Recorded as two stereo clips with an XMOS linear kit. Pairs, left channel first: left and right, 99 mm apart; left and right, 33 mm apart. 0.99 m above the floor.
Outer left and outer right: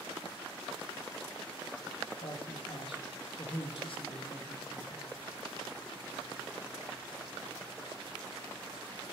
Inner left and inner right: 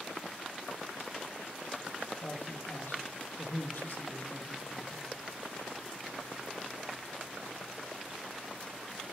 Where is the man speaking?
60° left (ahead or behind), 1.1 m.